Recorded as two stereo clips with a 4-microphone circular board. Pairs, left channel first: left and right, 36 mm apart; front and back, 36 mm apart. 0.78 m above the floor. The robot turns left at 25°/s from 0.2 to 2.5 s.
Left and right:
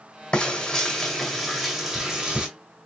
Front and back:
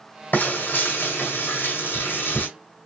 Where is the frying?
30° left, 1.9 m; by 2.5 s 25° right, 1.9 m.